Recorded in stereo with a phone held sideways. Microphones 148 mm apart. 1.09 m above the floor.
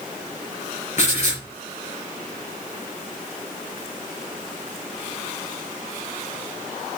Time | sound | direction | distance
1.0 | writing | 55° left (ahead or behind) | 4 m